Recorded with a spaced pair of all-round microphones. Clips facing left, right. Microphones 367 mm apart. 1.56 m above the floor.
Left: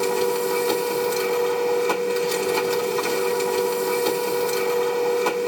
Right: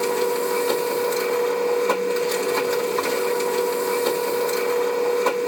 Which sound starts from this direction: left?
A machine running, at 0.0 s.